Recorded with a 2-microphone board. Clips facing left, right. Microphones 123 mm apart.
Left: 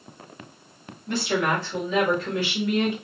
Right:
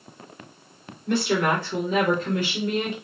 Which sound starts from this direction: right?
A woman speaking, at 1.1 s.